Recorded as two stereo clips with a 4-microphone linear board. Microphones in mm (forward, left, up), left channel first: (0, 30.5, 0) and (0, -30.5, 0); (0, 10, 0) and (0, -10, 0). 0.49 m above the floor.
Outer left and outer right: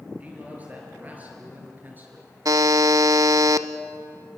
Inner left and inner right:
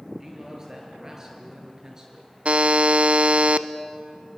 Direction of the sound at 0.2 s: 25° right (ahead or behind).